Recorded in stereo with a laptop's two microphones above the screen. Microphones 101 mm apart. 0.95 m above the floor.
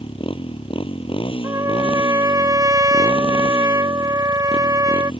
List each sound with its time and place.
0.0 s a motorcycle: 60° left (ahead or behind)
1.4 s a trumpet: 35° right (ahead or behind)